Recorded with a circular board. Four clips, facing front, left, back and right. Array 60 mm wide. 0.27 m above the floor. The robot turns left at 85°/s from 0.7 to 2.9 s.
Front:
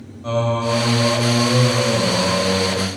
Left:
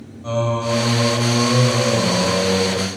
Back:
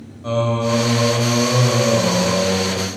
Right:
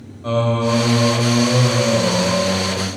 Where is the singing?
95° right, 0.5 m; by 2.9 s 85° left, 0.5 m.